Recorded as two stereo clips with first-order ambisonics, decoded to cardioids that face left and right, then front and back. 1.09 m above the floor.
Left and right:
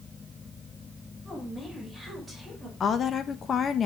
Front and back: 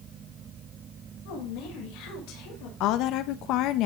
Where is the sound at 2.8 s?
25° left, 1.1 m.